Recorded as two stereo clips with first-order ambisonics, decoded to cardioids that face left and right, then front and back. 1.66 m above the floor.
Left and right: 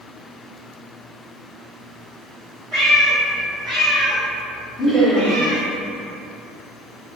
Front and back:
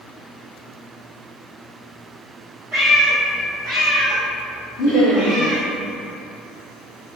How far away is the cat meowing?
About 1.3 m.